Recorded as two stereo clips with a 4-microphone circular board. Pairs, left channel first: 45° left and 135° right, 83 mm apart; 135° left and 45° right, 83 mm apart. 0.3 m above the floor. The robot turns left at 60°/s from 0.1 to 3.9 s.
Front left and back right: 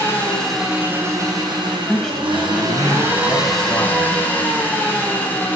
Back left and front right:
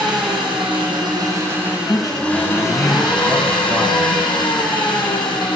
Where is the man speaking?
140° left, 1.4 m; by 4.5 s 20° left, 1.4 m.